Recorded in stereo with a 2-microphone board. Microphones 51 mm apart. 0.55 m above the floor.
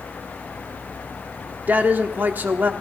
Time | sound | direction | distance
1.7 | a man speaking | 35° right (ahead or behind) | 1.2 m